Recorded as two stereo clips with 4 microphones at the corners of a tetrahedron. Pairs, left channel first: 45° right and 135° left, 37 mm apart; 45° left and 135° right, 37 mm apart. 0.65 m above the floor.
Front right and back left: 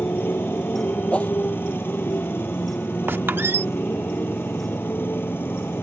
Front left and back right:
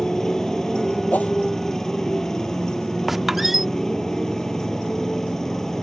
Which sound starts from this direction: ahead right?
A motorcycle, at 0.0 s.